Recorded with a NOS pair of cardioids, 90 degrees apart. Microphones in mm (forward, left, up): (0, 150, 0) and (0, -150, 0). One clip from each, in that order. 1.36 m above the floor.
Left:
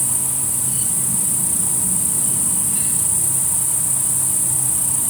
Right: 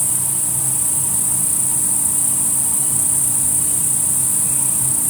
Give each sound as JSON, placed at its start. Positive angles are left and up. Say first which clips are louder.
{"t": 0.0, "sound": "an insect", "louder": "right 1 dB", "azimuth_deg": 0, "distance_m": 1.0}